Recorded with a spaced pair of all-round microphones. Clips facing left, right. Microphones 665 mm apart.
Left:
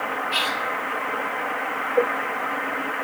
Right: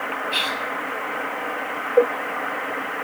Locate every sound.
0.3 s whispering: 30° left (ahead or behind), 4.5 m